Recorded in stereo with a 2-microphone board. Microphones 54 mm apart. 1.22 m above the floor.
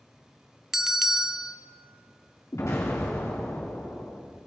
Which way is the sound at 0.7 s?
5° right (ahead or behind).